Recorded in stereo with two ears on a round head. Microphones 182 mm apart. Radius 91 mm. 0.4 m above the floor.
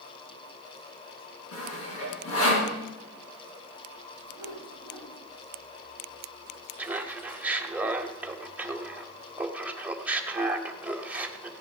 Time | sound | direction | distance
1.5 | sawing | 80° left | 4.5 m
4.3 | a whoosh | 55° left (ahead or behind) | 3.5 m
6.8 | laughter | 5° right (ahead or behind) | 1.6 m